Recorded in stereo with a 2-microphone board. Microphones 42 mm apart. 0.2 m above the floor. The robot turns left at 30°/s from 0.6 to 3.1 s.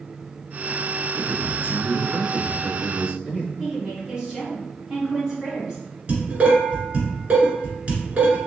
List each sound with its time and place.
1.1 s a man speaking: 85° right, 1.5 m; by 3.5 s 145° right, 1.5 m
3.6 s a woman speaking: 20° right (ahead or behind), 1.5 m
6.1 s dishes clattering: 35° right (ahead or behind), 1.6 m